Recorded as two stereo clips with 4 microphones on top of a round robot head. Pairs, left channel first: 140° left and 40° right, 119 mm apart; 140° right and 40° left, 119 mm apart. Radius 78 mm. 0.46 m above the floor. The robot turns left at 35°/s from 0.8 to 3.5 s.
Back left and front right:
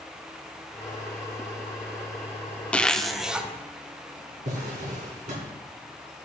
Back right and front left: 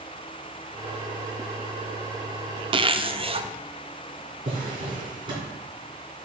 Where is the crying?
I don't hear crying.